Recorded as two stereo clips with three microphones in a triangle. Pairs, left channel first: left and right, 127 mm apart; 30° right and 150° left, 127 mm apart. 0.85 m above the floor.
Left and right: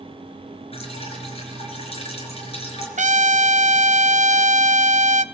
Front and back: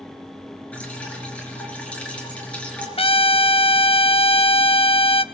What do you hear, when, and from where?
0.7 s dripping: 50° left, 4.5 m
3.0 s a trumpet: 75° right, 0.6 m